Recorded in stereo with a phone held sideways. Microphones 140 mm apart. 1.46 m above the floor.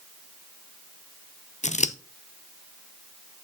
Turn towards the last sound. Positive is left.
turn(degrees=55)  # may be behind; listen again after turning